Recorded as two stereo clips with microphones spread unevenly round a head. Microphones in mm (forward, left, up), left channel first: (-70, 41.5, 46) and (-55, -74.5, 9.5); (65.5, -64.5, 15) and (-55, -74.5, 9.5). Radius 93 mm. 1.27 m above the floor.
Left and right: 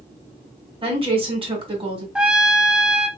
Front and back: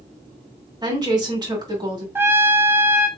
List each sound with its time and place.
0.8 s a woman speaking: 120° right, 2 m
2.1 s a trumpet: 125° right, 0.6 m